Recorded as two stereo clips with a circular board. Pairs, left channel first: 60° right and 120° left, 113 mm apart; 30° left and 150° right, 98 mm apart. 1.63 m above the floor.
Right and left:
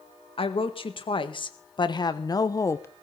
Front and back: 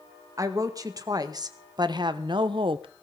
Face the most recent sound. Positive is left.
turn(degrees=-125)